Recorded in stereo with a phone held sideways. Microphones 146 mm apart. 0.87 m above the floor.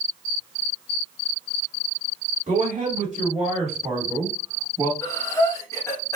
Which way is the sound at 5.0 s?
20° left (ahead or behind).